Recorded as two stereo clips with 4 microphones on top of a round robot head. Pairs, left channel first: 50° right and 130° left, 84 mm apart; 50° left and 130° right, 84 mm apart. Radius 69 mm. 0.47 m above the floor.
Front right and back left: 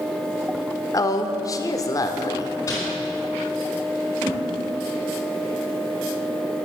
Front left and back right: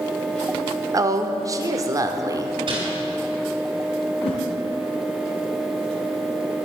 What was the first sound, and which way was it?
A woman speaking, 90° right.